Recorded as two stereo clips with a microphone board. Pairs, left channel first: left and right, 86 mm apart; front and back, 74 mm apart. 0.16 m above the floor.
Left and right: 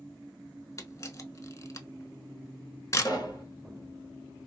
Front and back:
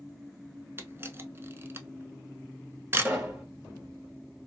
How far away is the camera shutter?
About 0.5 m.